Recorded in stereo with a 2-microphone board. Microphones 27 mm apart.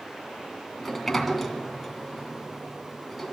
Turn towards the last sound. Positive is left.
turn(degrees=5)  # may be behind; listen again after turning